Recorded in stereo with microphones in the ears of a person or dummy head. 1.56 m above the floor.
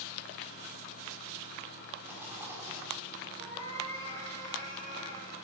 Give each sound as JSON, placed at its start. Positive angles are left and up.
{"t": 2.0, "sound": "a rattle", "side_deg": -5, "distance_m": 4.0}
{"t": 3.4, "sound": "a cat meowing", "side_deg": 20, "distance_m": 7.5}